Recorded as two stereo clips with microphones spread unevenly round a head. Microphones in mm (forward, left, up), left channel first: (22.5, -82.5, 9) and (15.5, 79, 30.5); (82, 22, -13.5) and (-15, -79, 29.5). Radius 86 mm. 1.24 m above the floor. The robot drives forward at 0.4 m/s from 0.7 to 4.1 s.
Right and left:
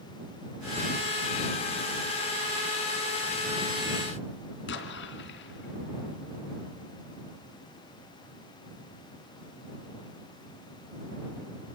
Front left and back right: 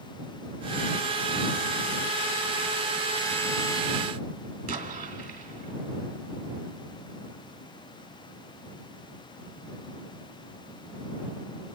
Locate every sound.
4.7 s an explosion: 100° right, 3 m